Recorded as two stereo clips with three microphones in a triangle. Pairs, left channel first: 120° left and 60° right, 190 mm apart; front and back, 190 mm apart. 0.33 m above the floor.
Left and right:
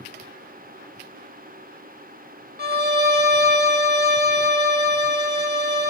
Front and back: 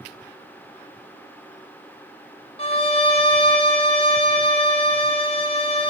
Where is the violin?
55° right, 2 m.